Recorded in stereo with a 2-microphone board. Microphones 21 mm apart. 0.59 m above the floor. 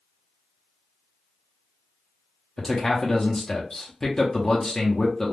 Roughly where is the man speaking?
Left.